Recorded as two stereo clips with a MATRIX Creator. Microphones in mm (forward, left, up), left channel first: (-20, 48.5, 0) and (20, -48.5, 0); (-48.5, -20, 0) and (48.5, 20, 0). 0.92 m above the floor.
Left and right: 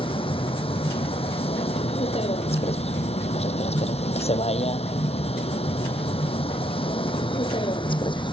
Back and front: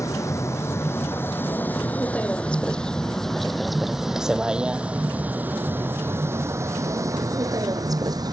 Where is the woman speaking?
No woman speaking in this recording.